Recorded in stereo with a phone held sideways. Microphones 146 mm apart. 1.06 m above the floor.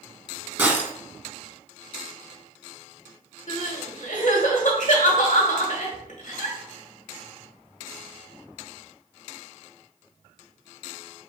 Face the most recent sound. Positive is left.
turn(degrees=70)  # may be behind; listen again after turning